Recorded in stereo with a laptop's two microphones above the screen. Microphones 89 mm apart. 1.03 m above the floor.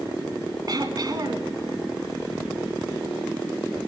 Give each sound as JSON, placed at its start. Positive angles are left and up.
{"t": 0.7, "sound": "throat clearing", "side_deg": -45, "distance_m": 1.9}